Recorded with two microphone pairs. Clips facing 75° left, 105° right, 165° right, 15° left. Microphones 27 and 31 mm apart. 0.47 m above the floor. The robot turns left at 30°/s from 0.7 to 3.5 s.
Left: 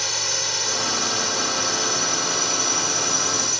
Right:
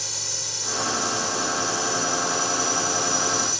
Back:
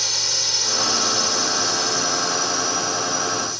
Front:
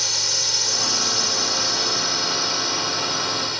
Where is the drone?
105° left; by 3.6 s 25° left.